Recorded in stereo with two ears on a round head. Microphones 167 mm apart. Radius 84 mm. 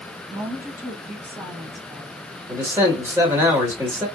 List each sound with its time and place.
0.3 s a woman speaking: 15° right (ahead or behind), 1.9 m
2.5 s a man speaking: 15° right (ahead or behind), 1.6 m